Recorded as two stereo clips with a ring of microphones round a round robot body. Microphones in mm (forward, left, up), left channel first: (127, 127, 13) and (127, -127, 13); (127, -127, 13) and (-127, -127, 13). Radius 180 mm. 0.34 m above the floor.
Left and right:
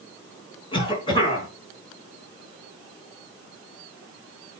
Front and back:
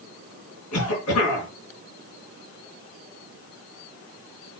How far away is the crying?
No crying in this recording.